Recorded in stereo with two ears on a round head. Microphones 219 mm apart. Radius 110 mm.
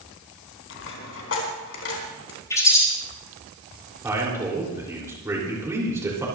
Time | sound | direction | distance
0.7 | a dropped coin | 60° left (ahead or behind) | 4 m
2.5 | a bird | 15° left (ahead or behind) | 5 m
4.0 | a man speaking | 10° right (ahead or behind) | 4 m